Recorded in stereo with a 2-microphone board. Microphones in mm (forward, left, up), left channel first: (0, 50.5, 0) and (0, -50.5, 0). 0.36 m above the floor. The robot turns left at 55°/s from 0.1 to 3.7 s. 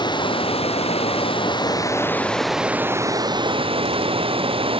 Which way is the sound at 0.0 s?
130° left.